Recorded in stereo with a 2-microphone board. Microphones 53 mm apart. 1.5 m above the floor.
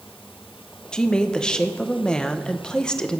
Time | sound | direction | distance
0.9 | a woman speaking | 20° left (ahead or behind) | 0.9 m